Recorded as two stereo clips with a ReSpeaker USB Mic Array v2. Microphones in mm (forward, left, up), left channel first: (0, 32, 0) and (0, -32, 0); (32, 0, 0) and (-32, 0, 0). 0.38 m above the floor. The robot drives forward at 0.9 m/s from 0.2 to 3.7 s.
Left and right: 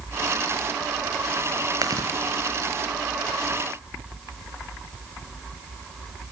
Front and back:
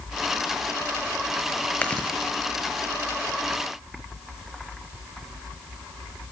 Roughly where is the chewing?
Right.